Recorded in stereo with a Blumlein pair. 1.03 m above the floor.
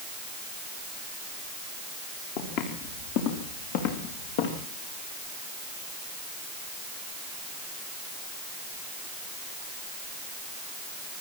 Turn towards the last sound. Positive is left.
turn(degrees=55)